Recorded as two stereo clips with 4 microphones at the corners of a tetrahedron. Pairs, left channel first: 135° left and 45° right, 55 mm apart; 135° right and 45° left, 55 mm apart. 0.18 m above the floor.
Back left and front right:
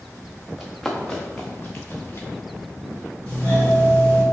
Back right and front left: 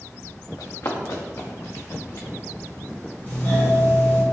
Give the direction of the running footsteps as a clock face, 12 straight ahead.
5 o'clock.